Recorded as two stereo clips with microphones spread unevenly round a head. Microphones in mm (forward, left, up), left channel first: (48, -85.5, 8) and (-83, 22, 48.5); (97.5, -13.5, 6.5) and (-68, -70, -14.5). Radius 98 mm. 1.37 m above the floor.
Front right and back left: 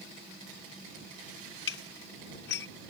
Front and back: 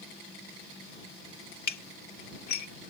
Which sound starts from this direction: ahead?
Dishes clattering, at 1.7 s.